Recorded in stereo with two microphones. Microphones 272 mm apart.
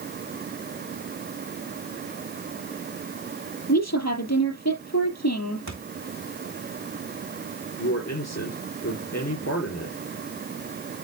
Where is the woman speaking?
75° left (ahead or behind), 4.5 m.